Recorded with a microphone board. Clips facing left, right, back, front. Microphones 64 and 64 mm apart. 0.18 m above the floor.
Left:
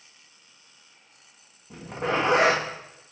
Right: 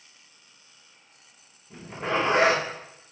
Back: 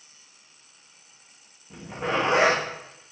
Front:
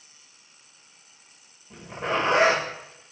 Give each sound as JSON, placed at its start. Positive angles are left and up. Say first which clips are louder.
{"t": 1.7, "sound": "a zipper", "louder": "left 1 dB, even", "azimuth_deg": 95, "distance_m": 4.5}